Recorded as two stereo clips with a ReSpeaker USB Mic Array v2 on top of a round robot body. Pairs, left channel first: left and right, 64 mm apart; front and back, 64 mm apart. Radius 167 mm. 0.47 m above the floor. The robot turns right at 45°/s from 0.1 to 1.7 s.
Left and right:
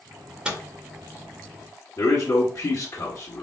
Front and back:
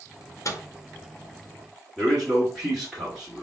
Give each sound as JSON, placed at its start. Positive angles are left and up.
{"t": 0.5, "sound": "a microwave", "azimuth_deg": -20, "distance_m": 1.4}
{"t": 2.0, "sound": "a man speaking", "azimuth_deg": 85, "distance_m": 1.9}